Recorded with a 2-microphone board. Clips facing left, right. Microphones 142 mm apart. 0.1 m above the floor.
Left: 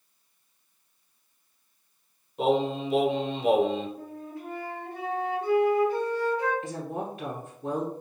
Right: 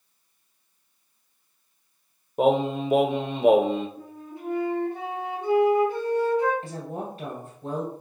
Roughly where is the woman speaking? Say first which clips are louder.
Left 1 dB; right.